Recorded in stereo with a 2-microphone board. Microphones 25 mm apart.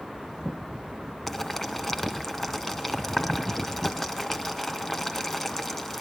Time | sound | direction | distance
1.3 | boiling | 15° left (ahead or behind) | 1.6 m